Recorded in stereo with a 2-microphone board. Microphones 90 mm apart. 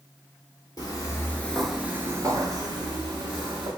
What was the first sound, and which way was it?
Footsteps, 50° left (ahead or behind).